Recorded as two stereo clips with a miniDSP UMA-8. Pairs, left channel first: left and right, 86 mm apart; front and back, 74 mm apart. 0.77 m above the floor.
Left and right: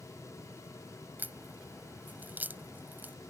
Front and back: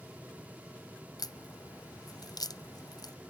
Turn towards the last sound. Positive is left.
turn(degrees=-20)